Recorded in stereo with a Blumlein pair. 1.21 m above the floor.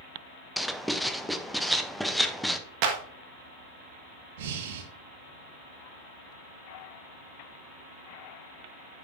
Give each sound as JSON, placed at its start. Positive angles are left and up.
{"t": 0.6, "sound": "writing", "azimuth_deg": 0, "distance_m": 0.6}
{"t": 2.8, "sound": "a clap", "azimuth_deg": -45, "distance_m": 1.5}
{"t": 4.4, "sound": "breathing", "azimuth_deg": -55, "distance_m": 1.2}